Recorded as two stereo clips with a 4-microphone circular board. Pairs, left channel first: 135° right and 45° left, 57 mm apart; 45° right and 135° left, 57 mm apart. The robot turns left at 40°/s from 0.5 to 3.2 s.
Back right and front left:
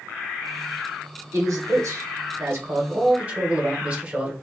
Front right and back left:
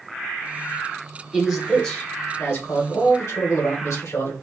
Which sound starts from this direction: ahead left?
A man speaking, at 1.3 s.